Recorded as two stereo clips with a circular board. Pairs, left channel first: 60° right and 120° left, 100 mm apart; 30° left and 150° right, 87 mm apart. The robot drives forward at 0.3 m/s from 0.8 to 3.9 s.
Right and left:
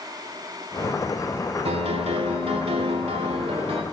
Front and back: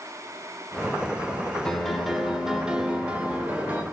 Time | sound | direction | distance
1.6 | a piano | 115° left | 1.0 m